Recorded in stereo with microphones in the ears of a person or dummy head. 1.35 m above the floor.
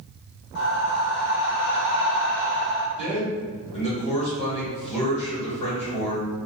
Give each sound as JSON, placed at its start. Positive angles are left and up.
{"t": 0.6, "sound": "breathing", "side_deg": 65, "distance_m": 0.9}
{"t": 3.0, "sound": "a man speaking", "side_deg": 35, "distance_m": 1.5}